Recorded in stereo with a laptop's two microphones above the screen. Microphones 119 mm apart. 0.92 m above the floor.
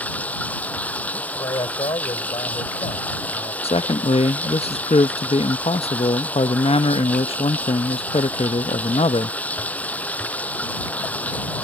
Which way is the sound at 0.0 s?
10° left (ahead or behind).